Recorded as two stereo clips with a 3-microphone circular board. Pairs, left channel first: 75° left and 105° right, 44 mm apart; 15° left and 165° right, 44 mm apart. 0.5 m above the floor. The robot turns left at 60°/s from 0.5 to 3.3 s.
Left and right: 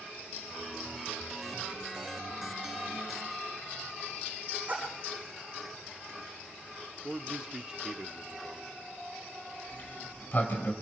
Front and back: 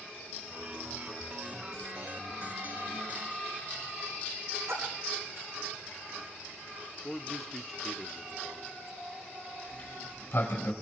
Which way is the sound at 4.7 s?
160° right.